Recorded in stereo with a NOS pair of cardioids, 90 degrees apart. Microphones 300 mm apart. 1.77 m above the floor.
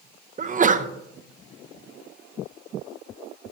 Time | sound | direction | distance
0.4 | a sneeze | 25° right | 0.7 m